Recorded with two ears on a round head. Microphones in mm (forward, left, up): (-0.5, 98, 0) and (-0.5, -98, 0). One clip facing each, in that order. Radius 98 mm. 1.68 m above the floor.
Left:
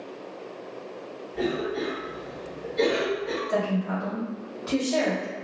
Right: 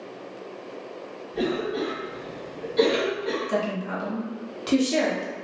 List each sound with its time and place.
1.3 s a cough: 75° right (ahead or behind), 1.7 m
3.5 s a woman speaking: 45° right (ahead or behind), 1.2 m